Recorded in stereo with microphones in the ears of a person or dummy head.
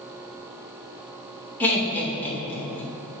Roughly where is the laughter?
Centre.